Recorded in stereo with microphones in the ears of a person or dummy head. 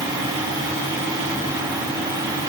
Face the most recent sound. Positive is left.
No sound to turn to.